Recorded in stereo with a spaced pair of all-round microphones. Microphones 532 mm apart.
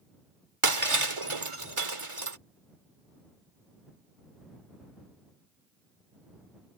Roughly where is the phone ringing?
No phone ringing in this recording.